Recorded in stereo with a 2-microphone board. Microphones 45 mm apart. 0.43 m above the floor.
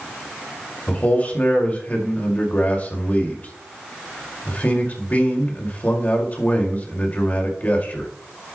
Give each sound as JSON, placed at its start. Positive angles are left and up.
{"t": 0.9, "sound": "a man speaking", "side_deg": 35, "distance_m": 1.9}